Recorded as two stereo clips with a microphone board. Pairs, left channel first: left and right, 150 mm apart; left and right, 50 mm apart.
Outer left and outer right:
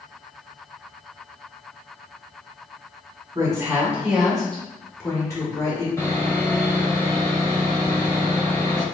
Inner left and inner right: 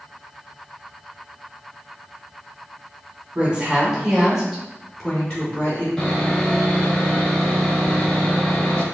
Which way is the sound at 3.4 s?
25° right (ahead or behind).